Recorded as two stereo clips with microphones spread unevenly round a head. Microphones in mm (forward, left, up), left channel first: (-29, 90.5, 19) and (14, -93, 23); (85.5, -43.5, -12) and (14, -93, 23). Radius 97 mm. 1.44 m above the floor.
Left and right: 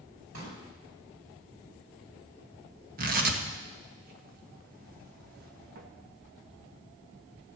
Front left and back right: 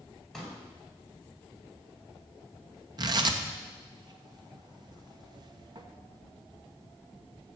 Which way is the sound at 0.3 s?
55° right.